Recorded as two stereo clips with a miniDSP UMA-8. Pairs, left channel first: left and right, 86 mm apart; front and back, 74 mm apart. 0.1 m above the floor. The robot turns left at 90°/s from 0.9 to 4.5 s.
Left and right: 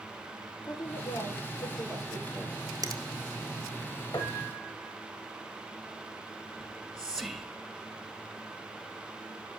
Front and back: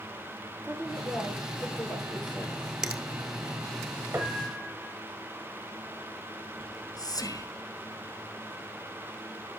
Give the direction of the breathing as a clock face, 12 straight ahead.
No breathing in this recording.